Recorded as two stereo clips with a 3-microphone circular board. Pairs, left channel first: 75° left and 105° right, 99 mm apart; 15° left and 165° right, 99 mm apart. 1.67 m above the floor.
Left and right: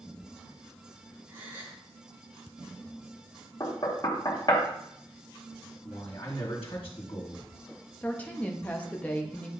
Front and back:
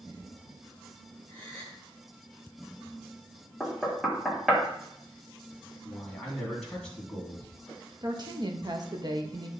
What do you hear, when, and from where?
1.3 s a gasp: 175° right, 3 m
3.6 s knocking: 110° left, 1.2 m
5.8 s a man speaking: 100° left, 2 m
8.0 s a woman speaking: 150° left, 0.9 m